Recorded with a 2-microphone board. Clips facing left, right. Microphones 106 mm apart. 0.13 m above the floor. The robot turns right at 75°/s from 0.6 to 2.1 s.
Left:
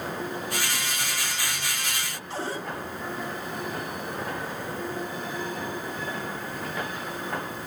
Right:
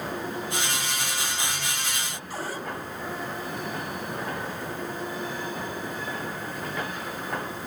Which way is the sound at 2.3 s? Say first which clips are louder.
Left 2 dB; 25° left (ahead or behind).